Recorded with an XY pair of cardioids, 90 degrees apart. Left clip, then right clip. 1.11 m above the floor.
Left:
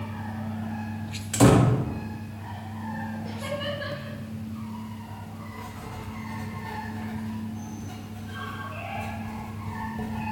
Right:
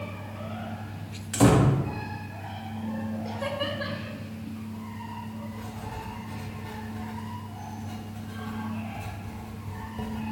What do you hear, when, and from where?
1.3 s a door slam: 20° left, 0.8 m
3.2 s laughter: 40° right, 2.5 m
5.5 s writing: 5° right, 1.5 m